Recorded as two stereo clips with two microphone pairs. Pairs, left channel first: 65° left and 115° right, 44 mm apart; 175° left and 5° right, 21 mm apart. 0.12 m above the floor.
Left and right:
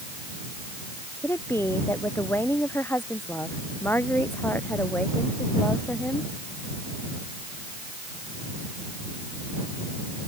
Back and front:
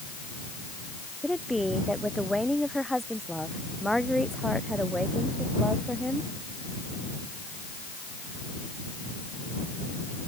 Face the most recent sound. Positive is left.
turn(degrees=115)